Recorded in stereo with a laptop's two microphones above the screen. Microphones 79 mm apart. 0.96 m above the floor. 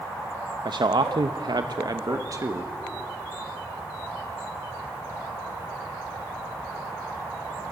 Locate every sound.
0.7 s a man speaking: 65° right (ahead or behind), 0.9 m; by 2.7 s 35° right (ahead or behind), 1.1 m